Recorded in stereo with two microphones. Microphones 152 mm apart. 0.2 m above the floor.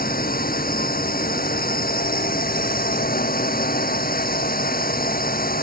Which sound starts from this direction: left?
A drone, at 0.0 s.